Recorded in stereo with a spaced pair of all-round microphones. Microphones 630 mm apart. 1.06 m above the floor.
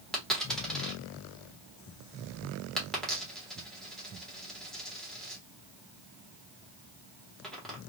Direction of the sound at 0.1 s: Centre (ahead or behind).